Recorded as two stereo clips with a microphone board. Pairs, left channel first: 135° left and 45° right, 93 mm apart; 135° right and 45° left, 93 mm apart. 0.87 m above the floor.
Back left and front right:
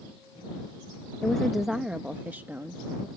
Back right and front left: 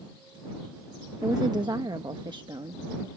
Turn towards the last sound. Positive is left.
turn(degrees=15)